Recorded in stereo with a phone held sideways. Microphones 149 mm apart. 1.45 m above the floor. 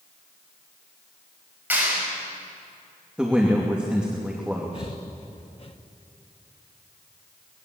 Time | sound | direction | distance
1.7 | a clap | 10° right (ahead or behind) | 8 m
3.2 | a woman speaking | 5° right (ahead or behind) | 2.5 m
4.7 | breathing | 40° left (ahead or behind) | 1.2 m